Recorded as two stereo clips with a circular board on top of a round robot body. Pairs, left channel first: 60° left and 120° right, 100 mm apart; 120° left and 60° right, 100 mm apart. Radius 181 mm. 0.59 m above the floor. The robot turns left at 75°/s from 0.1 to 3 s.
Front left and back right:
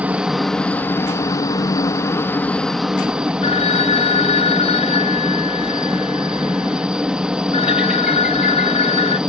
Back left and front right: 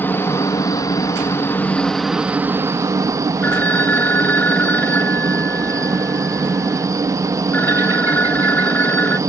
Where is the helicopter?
175° left; by 9.3 s 45° right.